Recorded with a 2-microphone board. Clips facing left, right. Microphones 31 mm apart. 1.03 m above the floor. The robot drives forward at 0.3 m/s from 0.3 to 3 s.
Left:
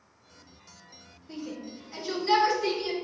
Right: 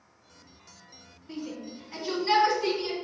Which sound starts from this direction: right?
A shout, at 1.3 s.